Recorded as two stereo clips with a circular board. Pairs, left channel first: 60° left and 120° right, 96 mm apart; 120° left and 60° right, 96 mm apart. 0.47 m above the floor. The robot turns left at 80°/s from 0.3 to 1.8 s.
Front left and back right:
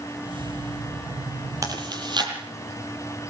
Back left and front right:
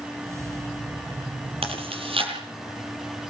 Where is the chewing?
65° right, 8 m; by 2.3 s 80° right, 8 m.